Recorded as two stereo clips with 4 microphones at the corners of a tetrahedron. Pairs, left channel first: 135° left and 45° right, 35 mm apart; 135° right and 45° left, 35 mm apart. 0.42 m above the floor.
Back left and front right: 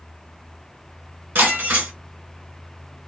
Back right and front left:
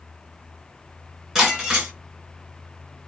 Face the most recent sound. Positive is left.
turn(degrees=-30)